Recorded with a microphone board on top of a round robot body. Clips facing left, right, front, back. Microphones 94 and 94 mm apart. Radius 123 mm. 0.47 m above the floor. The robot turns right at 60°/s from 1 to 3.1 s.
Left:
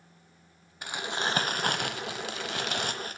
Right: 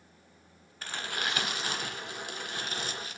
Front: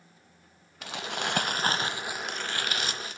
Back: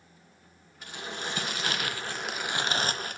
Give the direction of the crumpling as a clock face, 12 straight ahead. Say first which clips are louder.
Left 4 dB, front 4 dB; 12 o'clock.